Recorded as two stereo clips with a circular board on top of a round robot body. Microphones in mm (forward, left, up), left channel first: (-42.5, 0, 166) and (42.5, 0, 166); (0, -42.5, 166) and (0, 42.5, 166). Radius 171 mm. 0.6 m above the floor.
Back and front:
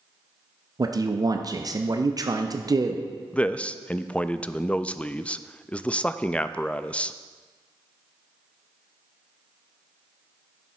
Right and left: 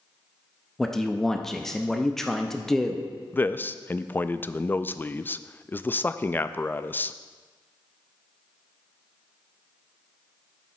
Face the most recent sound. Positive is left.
turn(degrees=-120)